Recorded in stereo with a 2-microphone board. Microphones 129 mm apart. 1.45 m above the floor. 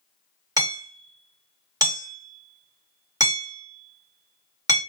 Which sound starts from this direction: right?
Hammering, at 0.6 s.